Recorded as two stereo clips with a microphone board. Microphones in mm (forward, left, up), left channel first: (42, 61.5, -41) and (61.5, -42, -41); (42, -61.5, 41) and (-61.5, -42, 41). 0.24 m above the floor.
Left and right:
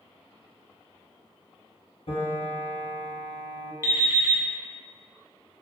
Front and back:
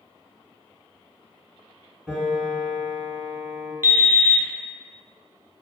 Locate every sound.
2.1 s a piano: 85° left, 1.0 m
3.8 s an alarm clock: 130° right, 0.5 m